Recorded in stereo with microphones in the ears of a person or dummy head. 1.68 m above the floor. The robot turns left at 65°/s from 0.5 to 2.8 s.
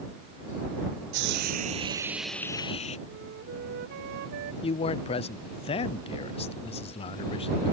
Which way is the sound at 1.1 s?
105° right.